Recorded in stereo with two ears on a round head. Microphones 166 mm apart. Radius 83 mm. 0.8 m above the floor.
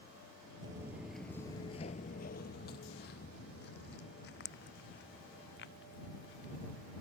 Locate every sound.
0.6 s footsteps: 20° right (ahead or behind); by 6.9 s 60° left (ahead or behind)